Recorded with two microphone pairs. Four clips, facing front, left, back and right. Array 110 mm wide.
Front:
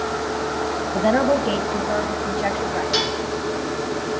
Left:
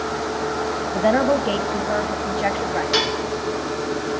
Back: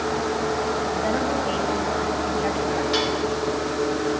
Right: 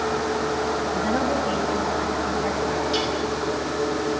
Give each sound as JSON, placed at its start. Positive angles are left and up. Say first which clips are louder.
{"t": 0.9, "sound": "a woman speaking", "louder": "left 9 dB, front 5 dB", "azimuth_deg": 55, "distance_m": 1.8}
{"t": 2.9, "sound": "dishes clattering", "louder": "left 2 dB, even", "azimuth_deg": 95, "distance_m": 1.3}